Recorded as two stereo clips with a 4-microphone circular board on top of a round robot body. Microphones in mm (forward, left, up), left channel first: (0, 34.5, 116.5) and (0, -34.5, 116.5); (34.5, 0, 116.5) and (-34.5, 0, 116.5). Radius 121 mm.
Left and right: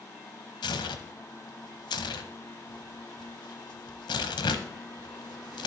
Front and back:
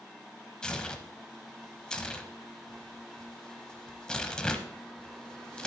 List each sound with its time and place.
0.6 s tearing paper: 80° left, 0.8 m